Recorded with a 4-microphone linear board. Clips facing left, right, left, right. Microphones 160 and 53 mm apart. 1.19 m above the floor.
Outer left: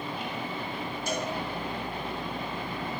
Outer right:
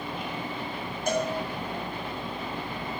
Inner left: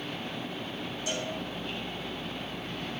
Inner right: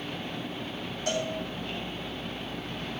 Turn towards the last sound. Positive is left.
turn(degrees=-50)  # may be behind; listen again after turning